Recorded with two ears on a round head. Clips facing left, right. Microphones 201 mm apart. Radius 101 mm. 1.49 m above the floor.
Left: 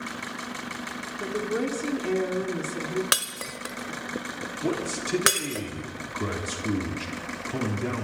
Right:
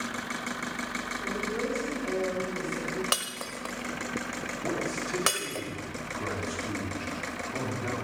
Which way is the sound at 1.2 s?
70° left (ahead or behind).